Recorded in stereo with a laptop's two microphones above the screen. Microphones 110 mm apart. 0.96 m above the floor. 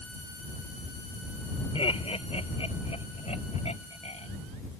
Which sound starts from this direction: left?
Laughter, at 1.8 s.